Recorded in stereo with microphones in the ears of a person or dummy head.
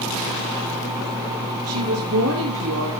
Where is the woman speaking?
70° right (ahead or behind), 1.5 m.